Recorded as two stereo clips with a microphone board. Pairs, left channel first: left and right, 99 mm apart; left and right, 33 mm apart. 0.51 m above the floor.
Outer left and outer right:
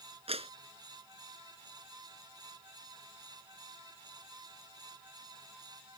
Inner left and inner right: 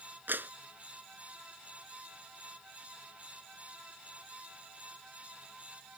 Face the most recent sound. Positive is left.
turn(degrees=-85)